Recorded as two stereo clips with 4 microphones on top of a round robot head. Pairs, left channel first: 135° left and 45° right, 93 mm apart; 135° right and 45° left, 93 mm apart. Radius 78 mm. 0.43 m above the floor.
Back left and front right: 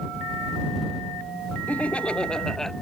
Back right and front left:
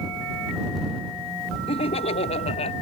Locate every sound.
1.7 s laughter: 150° right; by 2.7 s 140° right